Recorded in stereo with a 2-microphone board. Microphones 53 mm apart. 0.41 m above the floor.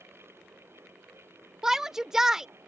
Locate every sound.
1.6 s a shout: 10° right (ahead or behind)